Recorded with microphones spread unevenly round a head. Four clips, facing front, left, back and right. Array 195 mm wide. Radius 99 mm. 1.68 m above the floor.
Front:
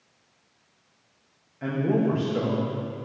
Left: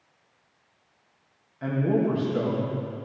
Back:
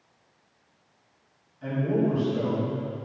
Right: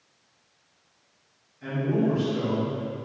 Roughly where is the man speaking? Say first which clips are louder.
Left 1 dB, front 1 dB; ahead left.